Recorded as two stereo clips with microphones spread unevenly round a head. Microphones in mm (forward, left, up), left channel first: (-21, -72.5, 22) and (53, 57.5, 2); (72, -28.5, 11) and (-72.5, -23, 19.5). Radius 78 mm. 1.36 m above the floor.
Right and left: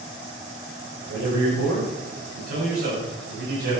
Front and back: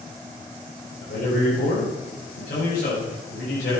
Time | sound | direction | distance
1.0 | a man speaking | 45° left | 6.5 m